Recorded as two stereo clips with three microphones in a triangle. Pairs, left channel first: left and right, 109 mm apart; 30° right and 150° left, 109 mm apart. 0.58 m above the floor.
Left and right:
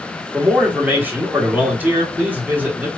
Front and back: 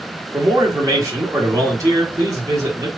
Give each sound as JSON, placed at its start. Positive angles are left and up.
{"t": 0.3, "sound": "a man speaking", "azimuth_deg": -160, "distance_m": 1.4}